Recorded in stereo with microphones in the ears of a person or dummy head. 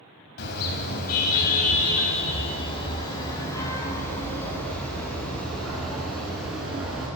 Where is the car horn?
60° left (ahead or behind), 4 m; by 7.1 s 5° right (ahead or behind), 8.5 m.